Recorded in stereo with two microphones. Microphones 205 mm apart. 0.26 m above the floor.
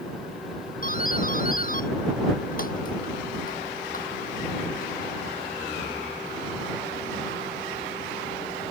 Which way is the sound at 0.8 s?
45° left (ahead or behind).